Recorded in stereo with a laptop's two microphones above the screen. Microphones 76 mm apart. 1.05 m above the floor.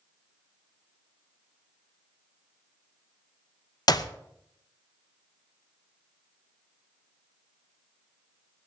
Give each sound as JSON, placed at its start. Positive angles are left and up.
{"t": 3.9, "sound": "a clap", "side_deg": 60, "distance_m": 0.7}